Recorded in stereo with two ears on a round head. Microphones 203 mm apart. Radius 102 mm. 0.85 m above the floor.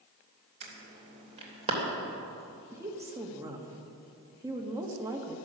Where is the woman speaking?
15° right (ahead or behind), 1.7 m.